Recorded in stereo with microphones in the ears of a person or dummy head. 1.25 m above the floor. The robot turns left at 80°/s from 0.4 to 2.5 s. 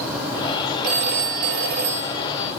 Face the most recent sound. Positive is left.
turn(degrees=180)